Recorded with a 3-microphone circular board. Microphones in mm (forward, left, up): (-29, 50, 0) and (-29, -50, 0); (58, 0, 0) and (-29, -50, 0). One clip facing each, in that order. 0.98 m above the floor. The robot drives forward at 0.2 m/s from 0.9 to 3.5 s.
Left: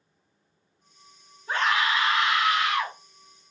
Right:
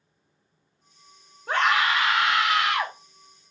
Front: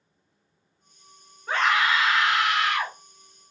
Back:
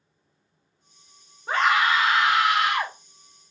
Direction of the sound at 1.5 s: 80° right.